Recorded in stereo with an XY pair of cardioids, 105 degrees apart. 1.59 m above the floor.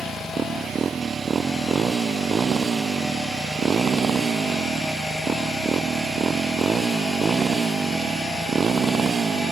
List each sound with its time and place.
0.0 s a motorcycle: 40° right